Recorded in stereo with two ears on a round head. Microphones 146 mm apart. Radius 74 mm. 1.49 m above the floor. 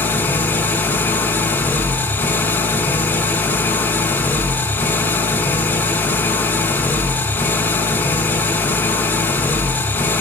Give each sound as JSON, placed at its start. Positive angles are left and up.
{"t": 0.0, "sound": "an engine running", "side_deg": 10, "distance_m": 1.2}